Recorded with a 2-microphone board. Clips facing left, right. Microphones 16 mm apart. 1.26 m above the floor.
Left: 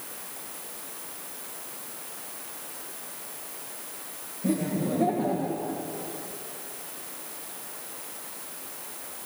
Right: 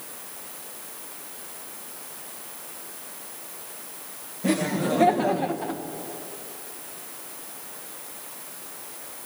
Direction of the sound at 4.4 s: 50° right (ahead or behind).